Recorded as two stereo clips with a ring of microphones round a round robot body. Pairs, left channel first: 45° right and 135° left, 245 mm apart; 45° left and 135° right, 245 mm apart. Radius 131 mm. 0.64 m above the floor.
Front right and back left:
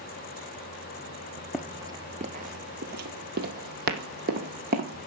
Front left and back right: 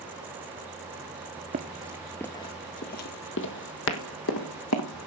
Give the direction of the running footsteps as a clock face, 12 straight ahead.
5 o'clock.